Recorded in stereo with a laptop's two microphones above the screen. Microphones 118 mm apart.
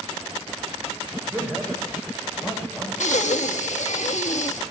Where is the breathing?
80° left, 1.1 m.